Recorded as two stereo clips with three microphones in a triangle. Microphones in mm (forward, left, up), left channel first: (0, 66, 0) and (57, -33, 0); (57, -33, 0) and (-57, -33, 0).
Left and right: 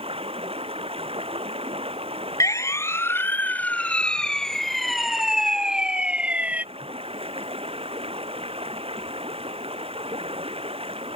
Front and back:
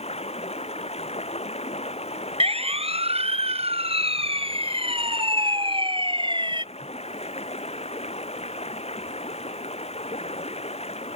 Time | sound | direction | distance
0.0 | running water | 25° right | ?
2.4 | a siren | 175° left | ?